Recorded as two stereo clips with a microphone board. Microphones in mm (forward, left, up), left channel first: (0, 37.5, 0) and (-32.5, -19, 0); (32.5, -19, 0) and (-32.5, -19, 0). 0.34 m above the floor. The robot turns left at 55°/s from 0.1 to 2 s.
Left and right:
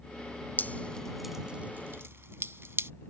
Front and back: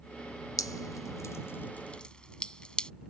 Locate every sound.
0.6 s dripping: 5° left; by 2.9 s 75° right